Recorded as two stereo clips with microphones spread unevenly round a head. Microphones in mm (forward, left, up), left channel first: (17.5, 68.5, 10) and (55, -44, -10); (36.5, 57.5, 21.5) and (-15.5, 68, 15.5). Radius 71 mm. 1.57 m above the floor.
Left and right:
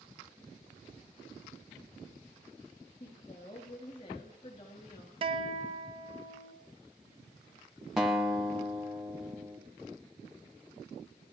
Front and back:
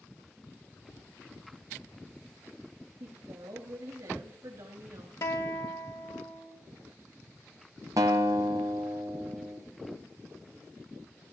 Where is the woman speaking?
160° left, 3 m.